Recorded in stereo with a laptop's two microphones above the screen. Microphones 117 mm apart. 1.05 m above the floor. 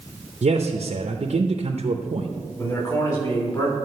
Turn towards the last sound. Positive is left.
turn(degrees=30)  # may be behind; listen again after turning